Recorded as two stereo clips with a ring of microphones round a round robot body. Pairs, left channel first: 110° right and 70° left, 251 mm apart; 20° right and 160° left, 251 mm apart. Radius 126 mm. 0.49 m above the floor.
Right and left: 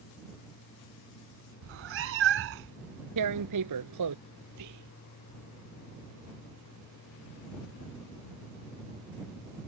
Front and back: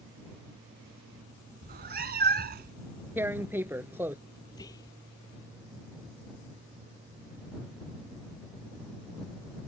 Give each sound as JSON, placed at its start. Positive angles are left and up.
{"t": 1.6, "sound": "a cat meowing", "azimuth_deg": 105}
{"t": 3.2, "sound": "tearing paper", "azimuth_deg": 75}
{"t": 4.5, "sound": "whispering", "azimuth_deg": 55}